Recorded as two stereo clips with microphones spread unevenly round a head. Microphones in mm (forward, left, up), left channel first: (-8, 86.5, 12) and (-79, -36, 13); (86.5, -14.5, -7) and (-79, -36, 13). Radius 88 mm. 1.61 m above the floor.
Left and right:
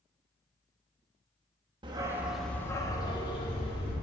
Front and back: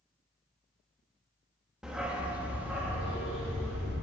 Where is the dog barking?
100° right, 1.1 m; by 3.9 s 105° left, 2.5 m.